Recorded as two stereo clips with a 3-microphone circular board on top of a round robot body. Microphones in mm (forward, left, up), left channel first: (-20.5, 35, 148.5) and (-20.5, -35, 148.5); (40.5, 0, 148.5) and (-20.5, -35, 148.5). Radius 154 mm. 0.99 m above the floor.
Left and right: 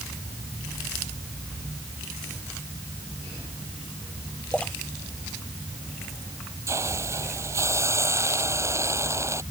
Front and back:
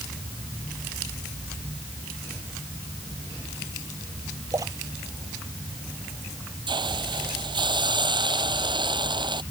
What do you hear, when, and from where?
4.5 s a splash: 165° left
6.7 s a hiss: 140° right